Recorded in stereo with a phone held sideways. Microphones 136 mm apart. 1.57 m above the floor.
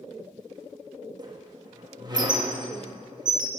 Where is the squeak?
30° right (ahead or behind), 1.3 m.